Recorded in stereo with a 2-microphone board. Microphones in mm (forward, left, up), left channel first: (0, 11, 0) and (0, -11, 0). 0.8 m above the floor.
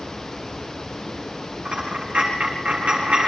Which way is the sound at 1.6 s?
60° right (ahead or behind).